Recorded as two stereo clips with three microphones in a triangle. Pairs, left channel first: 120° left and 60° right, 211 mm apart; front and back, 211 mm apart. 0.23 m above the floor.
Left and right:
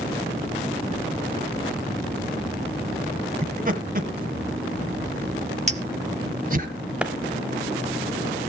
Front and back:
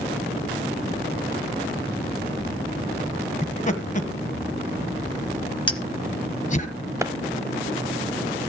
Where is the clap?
135° right, 0.7 m.